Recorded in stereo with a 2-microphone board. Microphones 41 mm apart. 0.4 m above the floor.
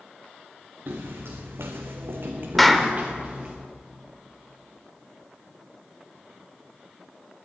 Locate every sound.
0.9 s footsteps: 65° right (ahead or behind), 2 m; by 3.5 s 25° right (ahead or behind), 2.5 m
2.6 s a clap: 5° left (ahead or behind), 0.9 m